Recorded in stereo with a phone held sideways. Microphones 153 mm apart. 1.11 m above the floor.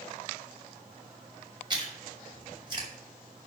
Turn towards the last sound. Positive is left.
turn(degrees=-30)  # may be behind; listen again after turning